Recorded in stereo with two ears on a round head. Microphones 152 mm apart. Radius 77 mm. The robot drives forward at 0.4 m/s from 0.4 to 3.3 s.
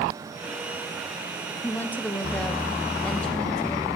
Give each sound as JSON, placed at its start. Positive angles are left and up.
{"t": 1.6, "sound": "a woman speaking", "side_deg": 10, "distance_m": 0.6}